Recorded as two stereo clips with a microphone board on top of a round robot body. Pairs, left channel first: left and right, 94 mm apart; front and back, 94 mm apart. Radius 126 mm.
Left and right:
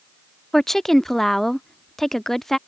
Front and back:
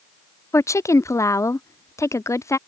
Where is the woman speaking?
5° left.